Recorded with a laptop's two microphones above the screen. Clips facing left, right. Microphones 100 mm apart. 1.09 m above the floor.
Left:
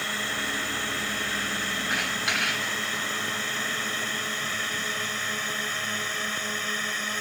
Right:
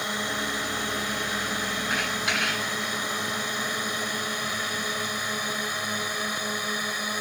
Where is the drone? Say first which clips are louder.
Right 2 dB; 15° right (ahead or behind); by 7.2 s 10° right (ahead or behind).